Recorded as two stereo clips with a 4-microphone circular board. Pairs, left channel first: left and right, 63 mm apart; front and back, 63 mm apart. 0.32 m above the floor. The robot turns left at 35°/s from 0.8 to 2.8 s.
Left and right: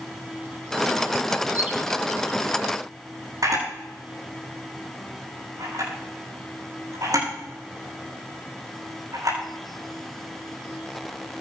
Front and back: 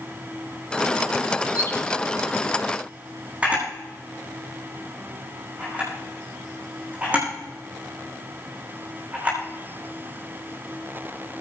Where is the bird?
20° right, 2.5 m; by 1.7 s 30° right, 2.5 m.